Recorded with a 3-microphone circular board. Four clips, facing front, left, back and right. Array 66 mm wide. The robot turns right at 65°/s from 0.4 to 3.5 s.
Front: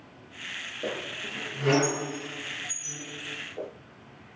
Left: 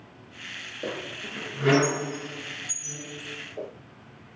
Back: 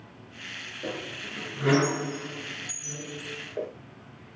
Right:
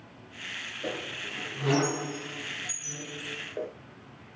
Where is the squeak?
55° left, 3.5 m; by 3.7 s 130° right, 3.5 m.